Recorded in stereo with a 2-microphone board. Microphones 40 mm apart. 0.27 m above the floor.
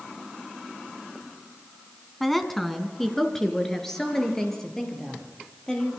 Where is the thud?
No thud in this recording.